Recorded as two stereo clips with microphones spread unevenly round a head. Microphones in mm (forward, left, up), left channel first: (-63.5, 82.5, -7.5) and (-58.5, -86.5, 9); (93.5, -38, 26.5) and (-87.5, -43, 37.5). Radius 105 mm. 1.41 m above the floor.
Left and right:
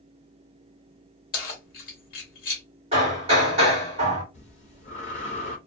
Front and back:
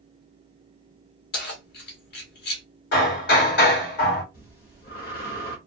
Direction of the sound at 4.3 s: 40° left.